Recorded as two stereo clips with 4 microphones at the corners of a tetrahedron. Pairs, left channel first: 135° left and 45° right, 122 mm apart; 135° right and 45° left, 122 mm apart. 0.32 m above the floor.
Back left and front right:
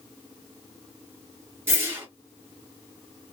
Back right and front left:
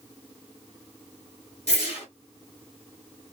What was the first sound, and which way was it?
A whoosh, 110° right.